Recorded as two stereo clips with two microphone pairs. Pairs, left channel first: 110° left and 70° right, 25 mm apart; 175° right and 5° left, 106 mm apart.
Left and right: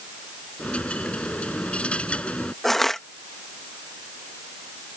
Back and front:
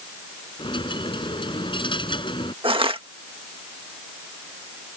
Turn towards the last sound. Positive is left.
turn(degrees=35)